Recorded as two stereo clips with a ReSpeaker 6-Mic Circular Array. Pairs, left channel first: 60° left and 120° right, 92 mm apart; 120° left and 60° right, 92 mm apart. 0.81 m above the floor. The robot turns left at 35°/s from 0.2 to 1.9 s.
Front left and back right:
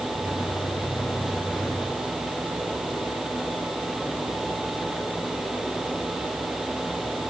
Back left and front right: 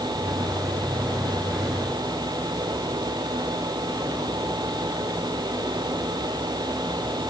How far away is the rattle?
I don't hear a rattle.